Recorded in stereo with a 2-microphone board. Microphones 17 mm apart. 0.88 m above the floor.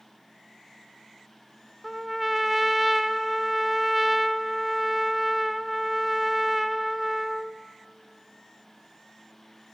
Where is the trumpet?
5° right (ahead or behind), 1.1 m.